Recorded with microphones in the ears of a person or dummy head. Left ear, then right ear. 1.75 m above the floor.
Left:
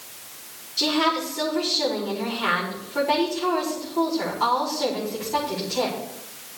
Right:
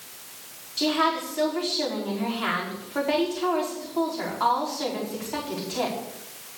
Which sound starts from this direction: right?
A woman speaking, at 0.8 s.